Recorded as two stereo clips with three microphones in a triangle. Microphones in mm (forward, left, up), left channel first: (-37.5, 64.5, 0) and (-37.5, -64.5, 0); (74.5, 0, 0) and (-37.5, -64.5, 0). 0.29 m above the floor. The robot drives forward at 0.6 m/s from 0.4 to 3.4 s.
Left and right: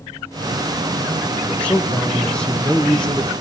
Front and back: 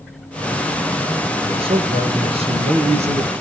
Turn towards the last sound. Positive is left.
turn(degrees=170)